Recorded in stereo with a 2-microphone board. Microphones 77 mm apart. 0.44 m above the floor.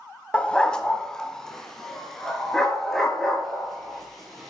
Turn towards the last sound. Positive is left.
turn(degrees=5)  # may be behind; listen again after turning